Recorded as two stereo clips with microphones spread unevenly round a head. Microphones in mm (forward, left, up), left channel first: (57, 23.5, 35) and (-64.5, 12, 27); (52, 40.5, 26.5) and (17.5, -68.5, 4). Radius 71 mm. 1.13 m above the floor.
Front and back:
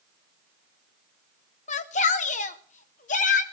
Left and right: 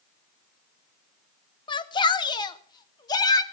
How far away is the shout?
About 1.6 m.